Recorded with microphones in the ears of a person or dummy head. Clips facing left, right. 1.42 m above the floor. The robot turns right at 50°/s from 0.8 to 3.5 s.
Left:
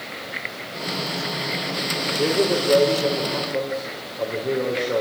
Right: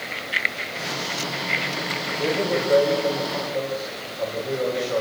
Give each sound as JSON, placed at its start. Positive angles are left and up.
{"t": 2.2, "sound": "a man speaking", "azimuth_deg": 50, "distance_m": 4.5}